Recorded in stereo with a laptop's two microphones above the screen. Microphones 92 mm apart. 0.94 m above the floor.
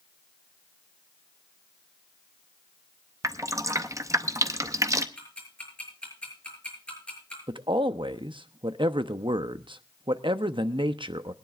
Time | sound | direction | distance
3.2 | dripping | 35° right (ahead or behind) | 0.6 m
5.2 | ticking | 15° left (ahead or behind) | 6.5 m
7.5 | a man speaking | 65° right (ahead or behind) | 0.9 m